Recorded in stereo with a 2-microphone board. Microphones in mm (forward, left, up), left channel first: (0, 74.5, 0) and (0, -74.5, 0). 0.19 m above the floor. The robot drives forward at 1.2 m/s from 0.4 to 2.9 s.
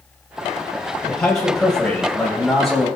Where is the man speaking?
5° left (ahead or behind), 3 m.